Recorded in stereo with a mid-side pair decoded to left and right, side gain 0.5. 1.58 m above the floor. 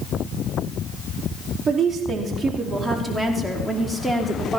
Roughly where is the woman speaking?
Ahead right.